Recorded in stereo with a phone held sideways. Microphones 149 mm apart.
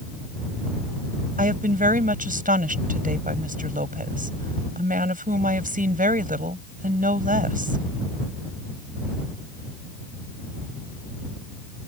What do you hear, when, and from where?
1.4 s a woman speaking: 60° right (ahead or behind)